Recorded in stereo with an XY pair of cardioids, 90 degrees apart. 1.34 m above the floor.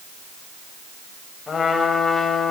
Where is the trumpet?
45° left, 5 m.